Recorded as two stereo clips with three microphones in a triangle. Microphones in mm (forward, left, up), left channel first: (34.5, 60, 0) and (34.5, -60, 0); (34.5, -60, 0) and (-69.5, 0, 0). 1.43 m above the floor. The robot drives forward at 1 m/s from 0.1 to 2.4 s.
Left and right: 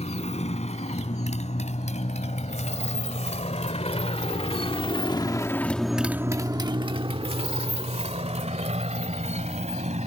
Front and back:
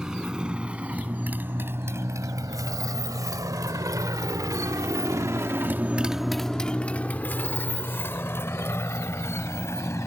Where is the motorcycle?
65° left; by 10.1 s 95° right.